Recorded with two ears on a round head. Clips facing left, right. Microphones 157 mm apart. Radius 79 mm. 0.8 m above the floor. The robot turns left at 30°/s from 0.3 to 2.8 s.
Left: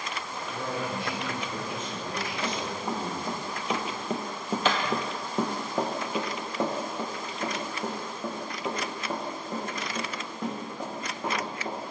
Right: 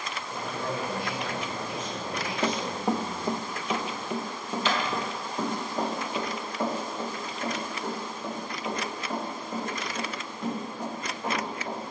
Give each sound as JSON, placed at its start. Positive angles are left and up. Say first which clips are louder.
{"t": 0.5, "sound": "a man speaking", "louder": "even", "azimuth_deg": 165, "distance_m": 2.0}
{"t": 2.4, "sound": "running footsteps", "louder": "right 7 dB", "side_deg": -20, "distance_m": 1.0}